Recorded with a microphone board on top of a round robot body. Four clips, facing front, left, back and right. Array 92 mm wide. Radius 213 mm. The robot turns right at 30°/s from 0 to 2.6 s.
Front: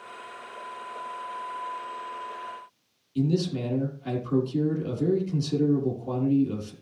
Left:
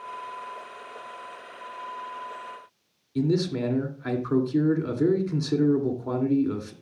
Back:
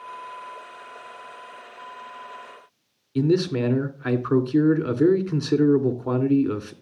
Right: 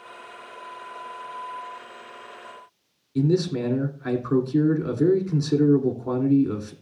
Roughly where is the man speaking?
Behind.